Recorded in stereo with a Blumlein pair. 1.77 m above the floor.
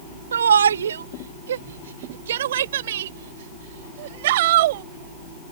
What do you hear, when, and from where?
0.3 s a shout: 70° right; by 4.8 s 55° right